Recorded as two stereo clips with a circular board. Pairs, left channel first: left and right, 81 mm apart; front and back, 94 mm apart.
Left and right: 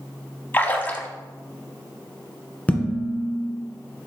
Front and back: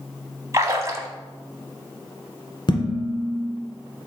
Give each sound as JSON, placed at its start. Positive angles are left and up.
{"t": 0.5, "sound": "a splash", "azimuth_deg": 145, "distance_m": 0.8}
{"t": 2.7, "sound": "dishes clattering", "azimuth_deg": 25, "distance_m": 1.6}